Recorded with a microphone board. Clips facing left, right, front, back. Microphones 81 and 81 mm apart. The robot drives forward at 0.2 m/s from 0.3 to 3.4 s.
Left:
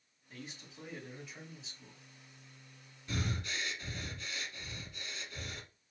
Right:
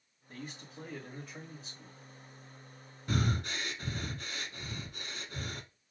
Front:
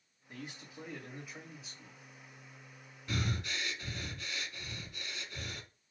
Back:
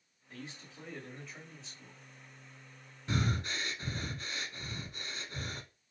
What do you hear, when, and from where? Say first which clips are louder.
0.3 s a man speaking: right 4 dB, front 1 dB; 70° right, 2 m; by 2.0 s 85° right, 1.9 m
3.1 s breathing: right 5 dB, back 3 dB; 125° right, 0.7 m